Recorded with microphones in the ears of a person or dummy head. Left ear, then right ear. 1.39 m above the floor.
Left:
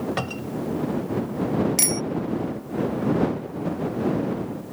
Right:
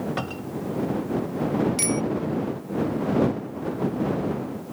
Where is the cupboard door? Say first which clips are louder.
Left 2 dB; 15° left (ahead or behind).